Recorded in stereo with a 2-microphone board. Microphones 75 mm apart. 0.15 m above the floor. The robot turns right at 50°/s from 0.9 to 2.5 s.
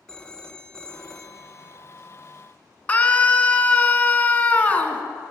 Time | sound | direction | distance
0.1 | a phone ringing | 10° left (ahead or behind) | 0.6 m
2.9 | a scream | 20° left (ahead or behind) | 1.3 m